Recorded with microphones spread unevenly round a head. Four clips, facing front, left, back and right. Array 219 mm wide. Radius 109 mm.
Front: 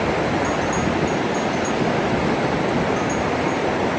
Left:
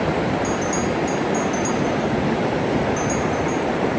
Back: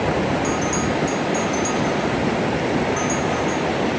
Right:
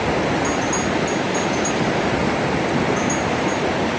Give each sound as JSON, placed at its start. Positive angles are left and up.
{"t": 0.4, "sound": "a bell", "azimuth_deg": 175}